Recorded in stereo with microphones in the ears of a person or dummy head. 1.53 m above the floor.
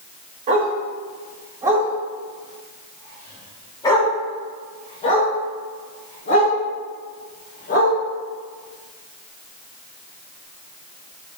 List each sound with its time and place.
0.5 s a dog barking: 35° right (ahead or behind), 2.0 m; by 8.0 s 50° left (ahead or behind), 4 m